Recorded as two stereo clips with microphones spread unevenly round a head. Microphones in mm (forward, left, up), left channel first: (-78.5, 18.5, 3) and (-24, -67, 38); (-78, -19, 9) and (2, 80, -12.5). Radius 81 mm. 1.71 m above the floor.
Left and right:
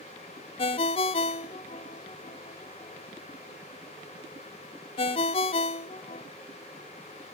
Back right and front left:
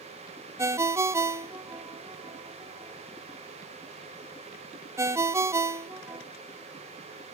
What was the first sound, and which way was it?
A ringtone, 115° left.